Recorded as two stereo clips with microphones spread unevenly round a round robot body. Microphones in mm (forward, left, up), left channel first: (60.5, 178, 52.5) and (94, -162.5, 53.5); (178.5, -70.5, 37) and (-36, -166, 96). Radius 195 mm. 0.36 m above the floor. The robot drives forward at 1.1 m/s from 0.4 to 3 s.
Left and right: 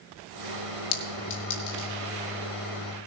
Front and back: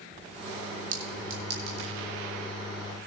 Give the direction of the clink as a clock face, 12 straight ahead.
7 o'clock.